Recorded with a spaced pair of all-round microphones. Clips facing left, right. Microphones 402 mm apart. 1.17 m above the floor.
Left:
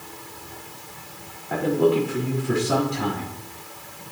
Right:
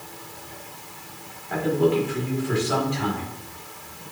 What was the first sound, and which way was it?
A man speaking, 55° left (ahead or behind).